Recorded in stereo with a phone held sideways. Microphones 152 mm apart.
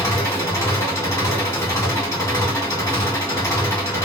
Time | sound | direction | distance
0.0 | an engine running | 20° left (ahead or behind) | 1.7 m